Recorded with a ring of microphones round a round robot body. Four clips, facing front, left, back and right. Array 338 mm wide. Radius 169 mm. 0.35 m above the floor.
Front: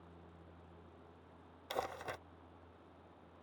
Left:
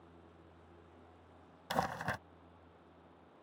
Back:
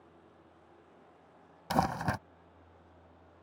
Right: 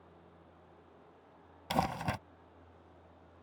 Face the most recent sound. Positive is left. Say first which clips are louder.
# right 3 dB, back 11 dB
turn(degrees=-165)